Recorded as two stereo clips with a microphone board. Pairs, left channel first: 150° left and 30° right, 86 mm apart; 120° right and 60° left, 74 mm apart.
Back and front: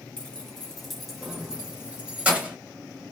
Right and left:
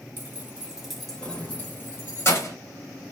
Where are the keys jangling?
80° left, 0.9 m; by 2.5 s 100° right, 1.2 m.